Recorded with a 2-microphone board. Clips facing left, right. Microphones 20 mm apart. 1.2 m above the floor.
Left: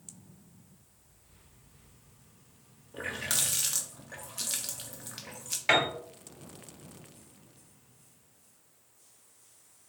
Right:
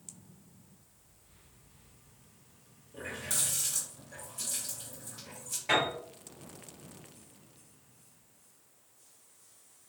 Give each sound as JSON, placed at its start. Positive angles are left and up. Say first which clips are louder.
{"t": 2.9, "sound": "a running tap", "louder": "left 4 dB", "side_deg": 65, "distance_m": 0.7}
{"t": 5.7, "sound": "a piano", "louder": "left 3 dB", "side_deg": 60, "distance_m": 1.6}